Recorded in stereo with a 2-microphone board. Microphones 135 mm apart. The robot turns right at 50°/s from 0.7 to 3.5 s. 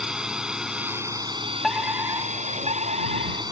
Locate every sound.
0.0 s a drone: 175° right; by 3.5 s 35° right
1.6 s a fire alarm: straight behind; by 3.4 s 90° right